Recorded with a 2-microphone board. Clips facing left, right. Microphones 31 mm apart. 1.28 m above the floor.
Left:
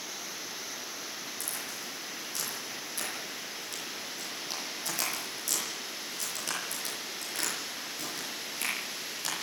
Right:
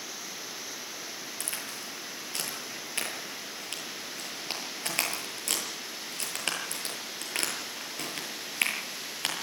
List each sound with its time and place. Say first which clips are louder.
1.4 s a crack: right 1 dB; 55° right (ahead or behind), 8 m